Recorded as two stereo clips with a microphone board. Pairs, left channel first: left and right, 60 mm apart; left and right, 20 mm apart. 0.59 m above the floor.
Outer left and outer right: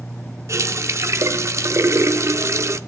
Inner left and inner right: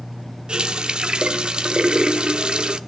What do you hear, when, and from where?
0.5 s a running tap: 50° right (ahead or behind), 0.6 m